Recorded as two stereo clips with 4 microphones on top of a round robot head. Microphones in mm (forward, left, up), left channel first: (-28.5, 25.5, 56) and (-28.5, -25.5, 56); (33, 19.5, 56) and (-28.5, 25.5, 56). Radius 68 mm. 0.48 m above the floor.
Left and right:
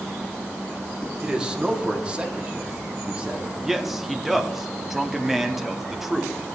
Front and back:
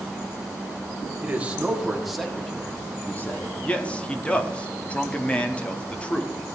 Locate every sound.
1.2 s a man speaking: 145° right, 1.4 m; by 3.5 s 30° right, 1.5 m
3.6 s a man speaking: 15° right, 0.8 m